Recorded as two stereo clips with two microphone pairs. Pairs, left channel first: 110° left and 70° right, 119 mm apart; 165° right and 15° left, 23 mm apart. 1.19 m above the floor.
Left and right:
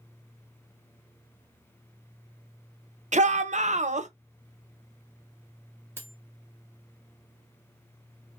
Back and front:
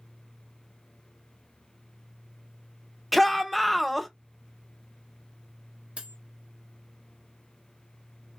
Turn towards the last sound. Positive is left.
turn(degrees=0)